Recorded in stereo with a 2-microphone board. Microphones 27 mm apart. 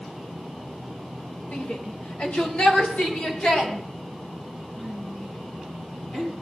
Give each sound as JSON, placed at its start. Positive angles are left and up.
{"t": 1.5, "sound": "a shout", "side_deg": 70, "distance_m": 2.0}